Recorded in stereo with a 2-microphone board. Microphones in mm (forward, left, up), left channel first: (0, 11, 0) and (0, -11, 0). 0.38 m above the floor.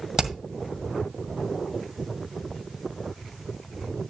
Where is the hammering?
25° right (ahead or behind), 1.8 m.